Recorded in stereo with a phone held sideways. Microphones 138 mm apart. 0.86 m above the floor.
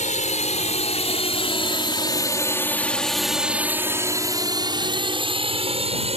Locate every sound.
0.0 s a drone: 60° left (ahead or behind); by 6.2 s 50° right (ahead or behind)